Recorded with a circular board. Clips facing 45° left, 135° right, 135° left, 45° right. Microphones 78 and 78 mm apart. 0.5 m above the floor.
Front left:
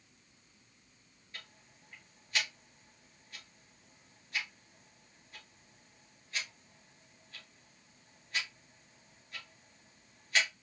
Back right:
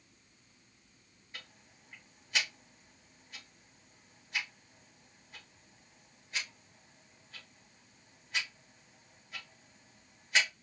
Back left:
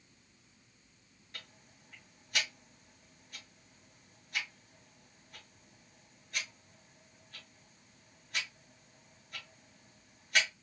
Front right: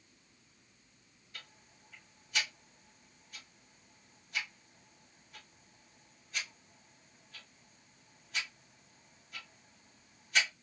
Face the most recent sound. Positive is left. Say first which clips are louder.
# back right 1 dB, back left 1 dB
turn(degrees=160)